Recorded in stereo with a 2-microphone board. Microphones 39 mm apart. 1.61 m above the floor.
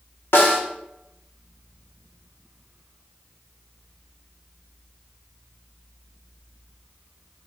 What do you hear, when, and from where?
0.3 s a snare drum: 70° left (ahead or behind), 0.7 m